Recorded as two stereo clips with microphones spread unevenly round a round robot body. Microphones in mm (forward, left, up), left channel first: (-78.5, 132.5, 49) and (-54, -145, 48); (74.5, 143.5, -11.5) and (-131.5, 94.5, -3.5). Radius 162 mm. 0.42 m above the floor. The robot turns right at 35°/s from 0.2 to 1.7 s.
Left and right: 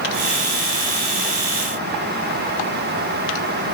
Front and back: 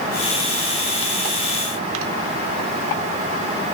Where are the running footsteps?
No running footsteps in this recording.